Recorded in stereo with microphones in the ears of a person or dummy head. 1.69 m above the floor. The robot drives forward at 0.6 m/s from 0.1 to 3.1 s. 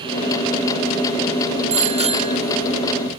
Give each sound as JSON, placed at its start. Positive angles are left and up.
{"t": 1.7, "sound": "a bicycle bell", "side_deg": -35}